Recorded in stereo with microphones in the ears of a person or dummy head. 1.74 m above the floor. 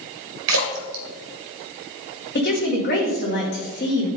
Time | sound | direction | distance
0.5 | a splash | 70° right (ahead or behind) | 1.4 m
2.4 | a woman speaking | 50° left (ahead or behind) | 2 m